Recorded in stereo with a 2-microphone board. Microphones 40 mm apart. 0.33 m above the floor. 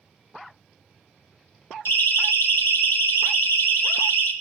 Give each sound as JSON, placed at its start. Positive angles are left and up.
{"t": 1.9, "sound": "a siren", "side_deg": 70, "distance_m": 5.0}